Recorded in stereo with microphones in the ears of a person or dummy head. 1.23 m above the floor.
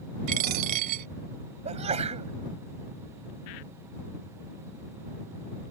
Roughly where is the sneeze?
Right.